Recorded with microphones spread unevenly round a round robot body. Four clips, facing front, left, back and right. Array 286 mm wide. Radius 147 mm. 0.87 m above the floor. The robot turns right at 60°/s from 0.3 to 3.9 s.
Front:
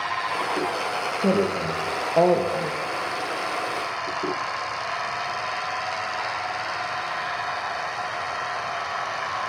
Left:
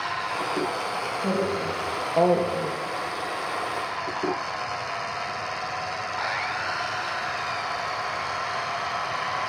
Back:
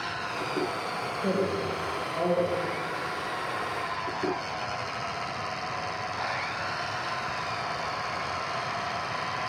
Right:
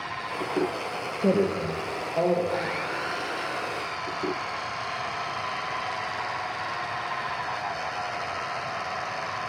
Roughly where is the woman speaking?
Ahead right.